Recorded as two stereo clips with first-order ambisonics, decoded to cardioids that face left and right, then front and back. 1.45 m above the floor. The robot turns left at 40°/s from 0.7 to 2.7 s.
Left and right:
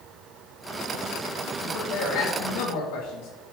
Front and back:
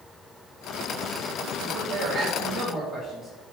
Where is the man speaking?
150° left, 1.3 m; by 3.3 s 105° left, 1.3 m.